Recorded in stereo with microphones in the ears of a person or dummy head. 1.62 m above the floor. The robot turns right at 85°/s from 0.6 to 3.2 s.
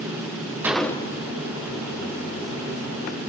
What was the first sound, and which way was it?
A gunshot, straight ahead.